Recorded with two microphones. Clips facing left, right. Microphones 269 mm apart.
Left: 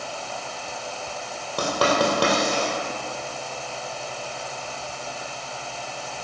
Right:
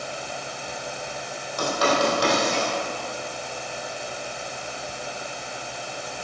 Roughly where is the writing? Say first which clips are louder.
Left 1 dB; left.